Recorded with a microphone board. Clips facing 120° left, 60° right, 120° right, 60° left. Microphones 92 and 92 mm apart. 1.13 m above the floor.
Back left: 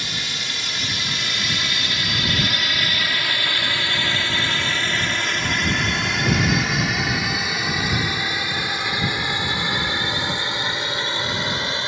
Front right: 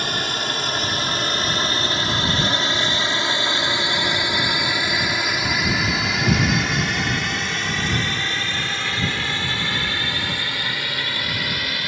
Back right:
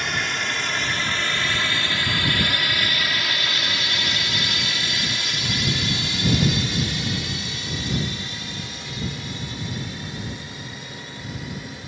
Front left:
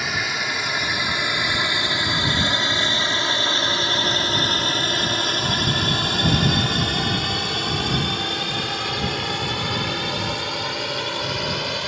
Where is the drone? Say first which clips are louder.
Front right 6 dB, front left 1 dB; 25° right; by 11.9 s 55° left.